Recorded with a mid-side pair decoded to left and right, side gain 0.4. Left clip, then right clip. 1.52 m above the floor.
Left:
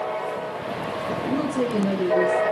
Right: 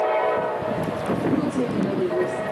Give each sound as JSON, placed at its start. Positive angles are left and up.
{"t": 1.3, "sound": "a woman speaking", "azimuth_deg": 50, "distance_m": 1.6}